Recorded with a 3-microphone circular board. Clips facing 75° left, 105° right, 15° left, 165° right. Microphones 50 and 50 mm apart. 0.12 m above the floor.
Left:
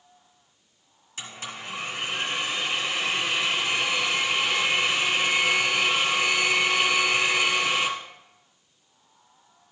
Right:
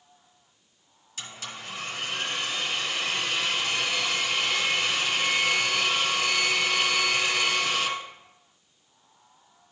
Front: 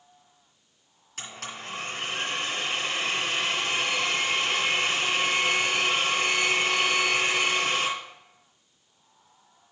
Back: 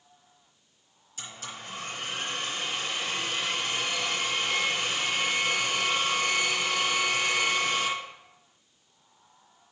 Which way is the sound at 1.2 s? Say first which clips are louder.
Left 2 dB, front 3 dB; 10° left.